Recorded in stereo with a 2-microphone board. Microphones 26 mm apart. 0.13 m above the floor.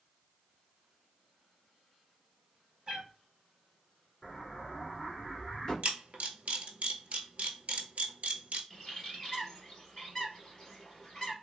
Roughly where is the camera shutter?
Right.